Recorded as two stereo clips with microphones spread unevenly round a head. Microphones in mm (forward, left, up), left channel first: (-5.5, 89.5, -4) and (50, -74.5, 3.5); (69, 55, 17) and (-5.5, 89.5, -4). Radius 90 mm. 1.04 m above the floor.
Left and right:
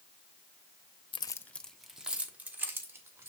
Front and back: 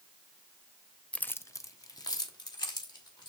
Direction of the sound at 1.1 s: 45° left.